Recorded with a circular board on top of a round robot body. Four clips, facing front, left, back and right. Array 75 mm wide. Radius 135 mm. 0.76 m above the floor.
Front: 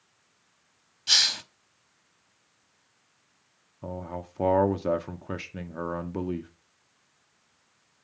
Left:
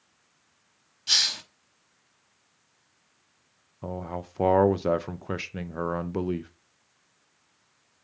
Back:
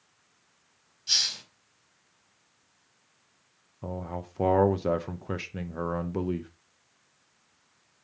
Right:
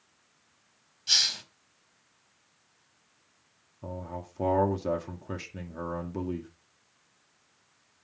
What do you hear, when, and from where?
1.1 s a hiss: 25° left, 1.1 m
3.8 s a man speaking: 95° left, 0.7 m